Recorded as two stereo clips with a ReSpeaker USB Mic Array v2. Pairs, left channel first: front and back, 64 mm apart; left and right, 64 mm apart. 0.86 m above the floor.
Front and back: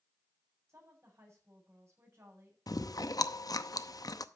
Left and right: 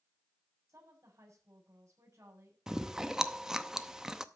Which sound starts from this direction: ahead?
Chewing, at 2.7 s.